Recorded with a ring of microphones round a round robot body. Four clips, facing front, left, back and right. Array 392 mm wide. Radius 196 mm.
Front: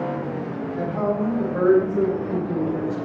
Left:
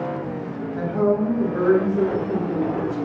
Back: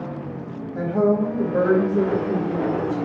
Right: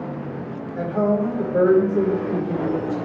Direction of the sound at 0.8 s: 150° right.